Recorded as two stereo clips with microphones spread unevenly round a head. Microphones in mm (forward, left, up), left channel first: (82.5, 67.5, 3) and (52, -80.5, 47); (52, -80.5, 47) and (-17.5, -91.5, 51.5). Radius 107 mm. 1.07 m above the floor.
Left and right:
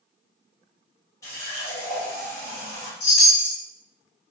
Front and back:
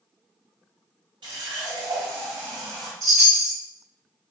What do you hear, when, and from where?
1.2 s a running tap: 160° left, 0.6 m
3.0 s a chime: 115° left, 1.3 m